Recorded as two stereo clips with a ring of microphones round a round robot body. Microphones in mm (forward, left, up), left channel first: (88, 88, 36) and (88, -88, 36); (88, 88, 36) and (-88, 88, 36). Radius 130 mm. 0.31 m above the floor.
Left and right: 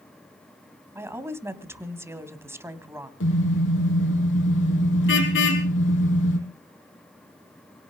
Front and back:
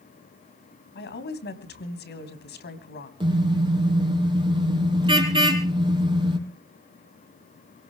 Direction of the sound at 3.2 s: 115° left.